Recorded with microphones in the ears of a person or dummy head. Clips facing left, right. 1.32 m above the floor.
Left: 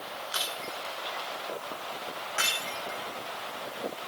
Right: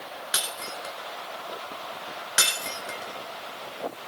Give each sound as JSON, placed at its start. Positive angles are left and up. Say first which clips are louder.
{"t": 0.3, "sound": "breaking glass", "louder": "right 1 dB", "side_deg": -75, "distance_m": 3.5}